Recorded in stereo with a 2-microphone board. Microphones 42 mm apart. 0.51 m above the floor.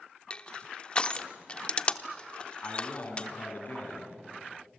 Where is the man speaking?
50° left (ahead or behind), 5 m.